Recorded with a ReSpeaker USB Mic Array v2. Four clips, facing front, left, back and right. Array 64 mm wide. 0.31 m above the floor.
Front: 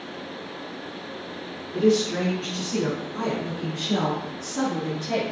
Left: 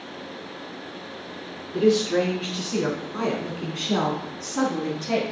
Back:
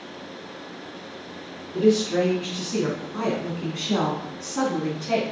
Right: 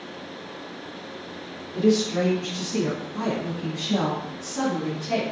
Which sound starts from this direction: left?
A woman speaking, at 1.7 s.